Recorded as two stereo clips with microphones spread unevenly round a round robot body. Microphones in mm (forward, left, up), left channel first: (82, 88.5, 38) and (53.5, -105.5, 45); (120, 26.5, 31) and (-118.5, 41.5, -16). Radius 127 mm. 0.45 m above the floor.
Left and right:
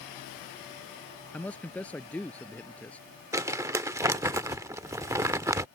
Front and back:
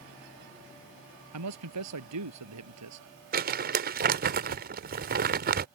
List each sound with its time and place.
1.3 s a man speaking: 165° left
3.3 s crumpling: 170° right